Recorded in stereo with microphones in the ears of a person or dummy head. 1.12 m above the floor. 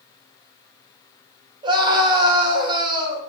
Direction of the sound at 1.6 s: 20° right (ahead or behind).